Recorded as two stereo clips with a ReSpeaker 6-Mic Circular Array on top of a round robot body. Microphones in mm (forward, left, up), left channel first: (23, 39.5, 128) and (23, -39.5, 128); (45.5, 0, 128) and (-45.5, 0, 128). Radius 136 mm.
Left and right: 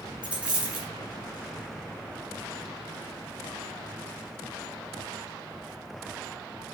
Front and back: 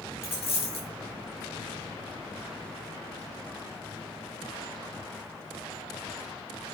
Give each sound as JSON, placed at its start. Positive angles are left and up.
{"t": 0.2, "sound": "a dropped coin", "azimuth_deg": -20, "distance_m": 4.0}